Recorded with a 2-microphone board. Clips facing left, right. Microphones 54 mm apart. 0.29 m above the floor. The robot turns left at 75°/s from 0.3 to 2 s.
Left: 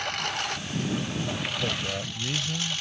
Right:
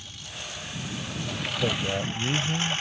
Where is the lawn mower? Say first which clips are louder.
Left 12 dB; 95° left; by 2.8 s 35° right.